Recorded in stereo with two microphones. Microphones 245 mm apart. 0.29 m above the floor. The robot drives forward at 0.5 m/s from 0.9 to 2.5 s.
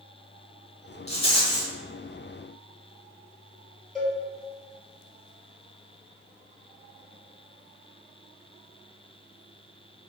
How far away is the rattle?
About 0.6 m.